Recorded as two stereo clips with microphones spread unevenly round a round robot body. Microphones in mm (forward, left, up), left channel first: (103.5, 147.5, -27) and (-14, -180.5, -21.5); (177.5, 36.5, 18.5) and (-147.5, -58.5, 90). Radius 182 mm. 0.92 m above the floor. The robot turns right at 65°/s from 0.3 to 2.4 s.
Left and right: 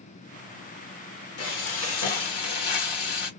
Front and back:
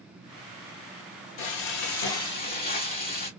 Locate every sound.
1.4 s frying: 20° left, 1.3 m; by 3.3 s 85° left, 1.3 m